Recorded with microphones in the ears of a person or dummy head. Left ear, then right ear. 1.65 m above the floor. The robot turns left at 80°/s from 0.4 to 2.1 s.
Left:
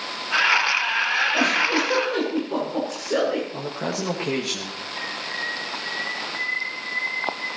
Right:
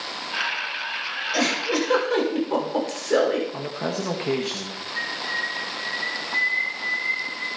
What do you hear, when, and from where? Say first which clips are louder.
1.3 s a giggle: left 3 dB; 70° right (ahead or behind), 7 m; by 3.4 s 50° right (ahead or behind), 7 m
3.5 s a man speaking: even; 5° right (ahead or behind), 1.9 m
5.0 s a bird: right 3 dB; 80° right, 7 m